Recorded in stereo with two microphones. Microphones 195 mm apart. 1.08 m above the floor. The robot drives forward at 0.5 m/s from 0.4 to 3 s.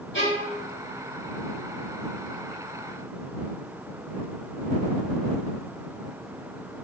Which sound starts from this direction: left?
A violin, at 0.1 s.